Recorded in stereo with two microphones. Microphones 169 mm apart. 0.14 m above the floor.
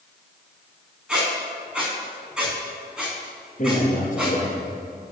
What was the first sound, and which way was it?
A squeak, 5° right (ahead or behind).